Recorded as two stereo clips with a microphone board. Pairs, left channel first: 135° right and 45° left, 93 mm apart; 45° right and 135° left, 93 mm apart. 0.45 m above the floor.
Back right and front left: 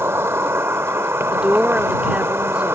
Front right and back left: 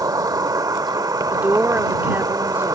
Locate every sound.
0.0 s an insect: 100° left
1.3 s a woman speaking: 105° left